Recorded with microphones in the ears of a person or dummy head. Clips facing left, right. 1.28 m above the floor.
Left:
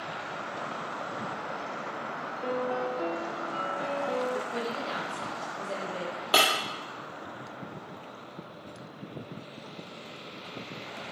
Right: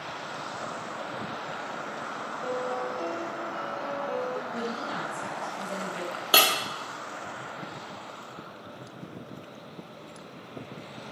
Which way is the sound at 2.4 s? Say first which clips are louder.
Left 1 dB; 15° left (ahead or behind).